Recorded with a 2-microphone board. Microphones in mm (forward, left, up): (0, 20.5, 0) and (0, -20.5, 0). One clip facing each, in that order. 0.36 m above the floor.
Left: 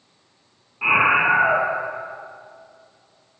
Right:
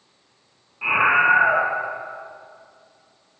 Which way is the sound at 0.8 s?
15° left (ahead or behind).